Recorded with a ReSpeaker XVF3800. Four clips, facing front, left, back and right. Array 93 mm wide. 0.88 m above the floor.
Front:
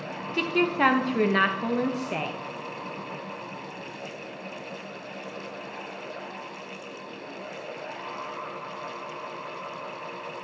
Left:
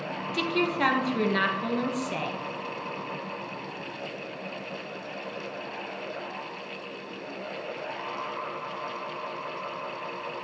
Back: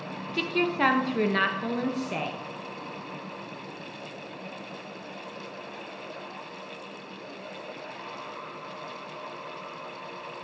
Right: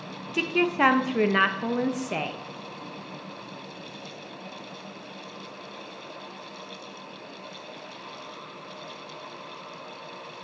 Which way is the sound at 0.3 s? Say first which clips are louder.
Right 3 dB, front 2 dB; 70° right.